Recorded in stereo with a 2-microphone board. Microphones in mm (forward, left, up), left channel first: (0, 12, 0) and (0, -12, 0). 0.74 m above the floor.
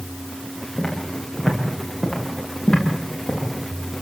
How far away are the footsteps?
About 10 m.